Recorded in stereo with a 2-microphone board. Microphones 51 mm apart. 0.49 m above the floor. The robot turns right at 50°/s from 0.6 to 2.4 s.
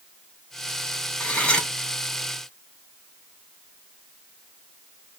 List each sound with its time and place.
1.2 s cutlery clinking: 35° left (ahead or behind), 0.8 m; by 1.7 s 15° left (ahead or behind), 0.8 m